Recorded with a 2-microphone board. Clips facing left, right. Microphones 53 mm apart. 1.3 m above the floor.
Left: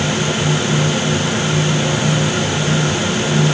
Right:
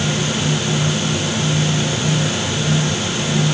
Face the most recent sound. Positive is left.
No sound to turn to.